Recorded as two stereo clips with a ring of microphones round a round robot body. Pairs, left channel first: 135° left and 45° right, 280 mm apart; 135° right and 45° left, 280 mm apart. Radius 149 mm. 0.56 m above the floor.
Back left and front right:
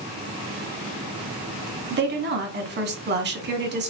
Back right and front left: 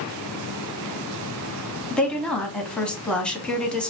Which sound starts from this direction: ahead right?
A woman speaking, at 1.9 s.